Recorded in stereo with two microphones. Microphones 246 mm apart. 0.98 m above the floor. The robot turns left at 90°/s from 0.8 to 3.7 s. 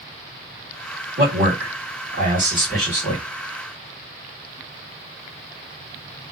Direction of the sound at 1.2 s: 35° right.